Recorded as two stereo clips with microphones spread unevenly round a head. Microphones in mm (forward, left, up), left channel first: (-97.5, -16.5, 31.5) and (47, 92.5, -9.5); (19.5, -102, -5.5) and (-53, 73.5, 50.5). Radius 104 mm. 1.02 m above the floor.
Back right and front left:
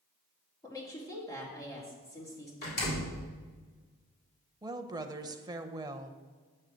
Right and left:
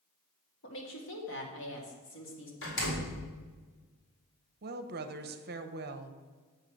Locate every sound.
0.6 s a woman speaking: 65° right, 2.5 m
2.6 s a door slam: 90° right, 3 m
4.6 s a woman speaking: 75° left, 0.8 m